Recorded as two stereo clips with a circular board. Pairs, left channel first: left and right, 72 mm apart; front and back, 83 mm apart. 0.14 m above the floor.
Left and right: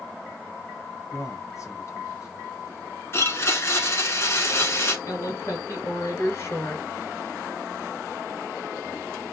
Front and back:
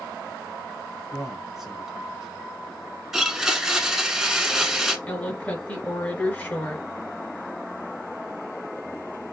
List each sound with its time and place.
1.1 s a man speaking: 90° left, 1.6 m
3.1 s a blender: 95° left, 1.0 m
5.1 s a woman speaking: 60° left, 2.0 m